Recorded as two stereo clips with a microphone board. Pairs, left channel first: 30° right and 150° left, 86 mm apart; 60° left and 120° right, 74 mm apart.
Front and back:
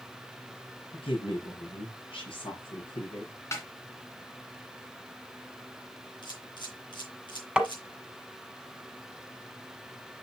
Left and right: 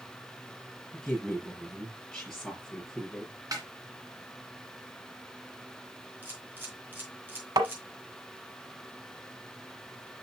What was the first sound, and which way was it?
A woman speaking, 25° right.